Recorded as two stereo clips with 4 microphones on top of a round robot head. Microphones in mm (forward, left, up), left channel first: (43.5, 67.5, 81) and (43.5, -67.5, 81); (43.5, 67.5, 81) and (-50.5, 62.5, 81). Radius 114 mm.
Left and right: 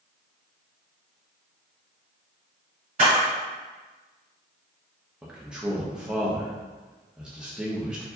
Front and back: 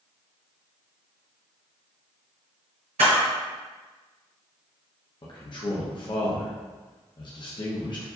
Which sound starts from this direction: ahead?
A man speaking, at 5.2 s.